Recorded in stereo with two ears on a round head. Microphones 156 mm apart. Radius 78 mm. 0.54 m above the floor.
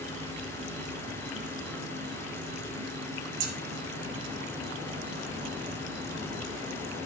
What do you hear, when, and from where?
0.0 s an insect: 50° right (ahead or behind), 1.4 m
3.4 s scissors: 75° right (ahead or behind), 1.4 m